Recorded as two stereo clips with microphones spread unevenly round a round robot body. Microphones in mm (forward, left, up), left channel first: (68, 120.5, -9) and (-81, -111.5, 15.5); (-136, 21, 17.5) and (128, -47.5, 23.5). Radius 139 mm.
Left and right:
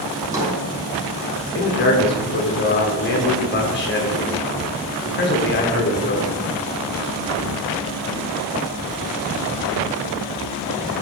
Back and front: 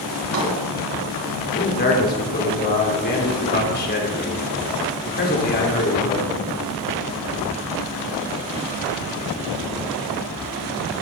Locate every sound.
0.1 s a drawer: 45° right, 5 m
1.6 s a man speaking: 110° left, 2.5 m